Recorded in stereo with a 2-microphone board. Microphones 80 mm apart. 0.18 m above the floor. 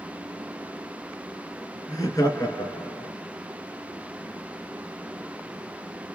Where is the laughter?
40° left (ahead or behind), 2.5 m.